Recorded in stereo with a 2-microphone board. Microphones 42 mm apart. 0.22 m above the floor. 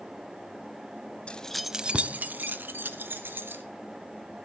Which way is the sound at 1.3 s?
30° left (ahead or behind).